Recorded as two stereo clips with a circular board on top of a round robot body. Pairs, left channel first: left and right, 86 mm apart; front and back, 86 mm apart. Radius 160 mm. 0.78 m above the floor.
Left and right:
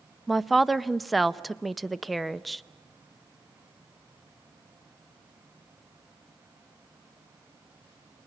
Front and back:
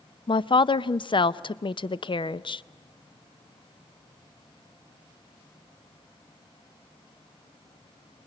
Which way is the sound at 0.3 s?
Straight ahead.